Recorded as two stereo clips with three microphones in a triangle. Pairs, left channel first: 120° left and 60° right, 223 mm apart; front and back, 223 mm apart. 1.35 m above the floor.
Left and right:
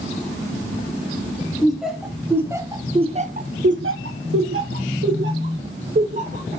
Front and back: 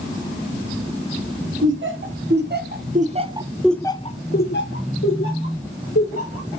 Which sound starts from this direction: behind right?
Laughter, at 1.6 s.